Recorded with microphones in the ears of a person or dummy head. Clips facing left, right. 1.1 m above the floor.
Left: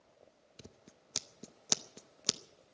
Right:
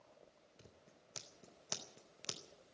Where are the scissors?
70° left (ahead or behind), 0.7 m.